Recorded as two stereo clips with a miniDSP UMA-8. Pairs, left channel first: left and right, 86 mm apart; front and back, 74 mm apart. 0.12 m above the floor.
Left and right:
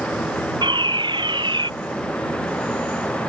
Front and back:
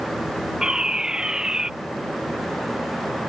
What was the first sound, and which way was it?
A fire alarm, 100° right.